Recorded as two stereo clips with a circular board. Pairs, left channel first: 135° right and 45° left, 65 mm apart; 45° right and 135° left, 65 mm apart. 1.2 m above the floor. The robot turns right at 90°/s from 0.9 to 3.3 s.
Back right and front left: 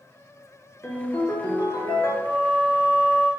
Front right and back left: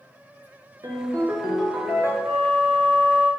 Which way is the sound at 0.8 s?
160° left.